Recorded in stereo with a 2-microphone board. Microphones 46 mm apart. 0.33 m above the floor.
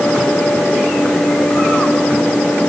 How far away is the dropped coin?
I don't hear a dropped coin.